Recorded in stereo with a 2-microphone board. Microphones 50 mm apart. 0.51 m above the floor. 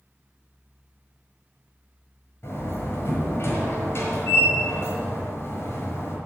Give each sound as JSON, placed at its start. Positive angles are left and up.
{"t": 2.4, "sound": "a door slam", "side_deg": 50, "distance_m": 5.5}